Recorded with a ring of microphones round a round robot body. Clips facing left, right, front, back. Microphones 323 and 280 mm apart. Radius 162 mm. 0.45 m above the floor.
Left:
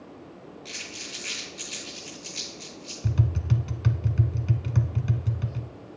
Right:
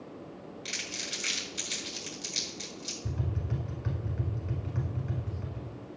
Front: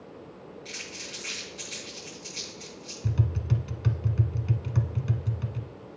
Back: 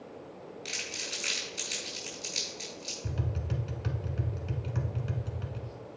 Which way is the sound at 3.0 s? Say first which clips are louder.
Left 8 dB, front 6 dB; 65° left.